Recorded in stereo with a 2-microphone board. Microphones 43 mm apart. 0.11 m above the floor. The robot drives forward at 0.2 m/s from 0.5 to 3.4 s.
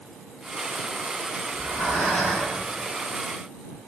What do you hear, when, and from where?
1.5 s breathing: 70° left (ahead or behind), 1.9 m; by 2.6 s 65° left (ahead or behind), 2.0 m